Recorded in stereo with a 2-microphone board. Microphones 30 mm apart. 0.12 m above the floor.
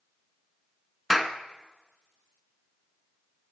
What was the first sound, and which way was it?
A clap, 10° right (ahead or behind).